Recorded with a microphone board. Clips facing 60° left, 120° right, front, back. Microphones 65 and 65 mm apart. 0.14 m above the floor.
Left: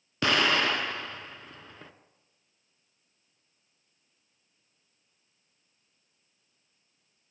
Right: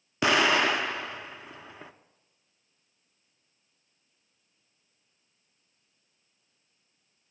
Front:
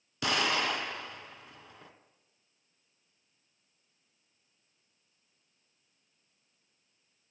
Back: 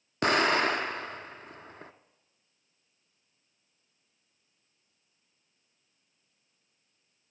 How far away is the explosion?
About 0.5 m.